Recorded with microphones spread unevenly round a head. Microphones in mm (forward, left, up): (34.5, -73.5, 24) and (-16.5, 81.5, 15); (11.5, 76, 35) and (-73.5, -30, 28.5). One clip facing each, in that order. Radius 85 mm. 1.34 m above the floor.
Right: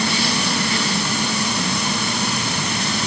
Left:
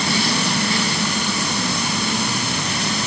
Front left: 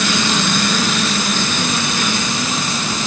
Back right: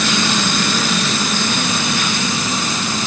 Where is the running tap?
No running tap in this recording.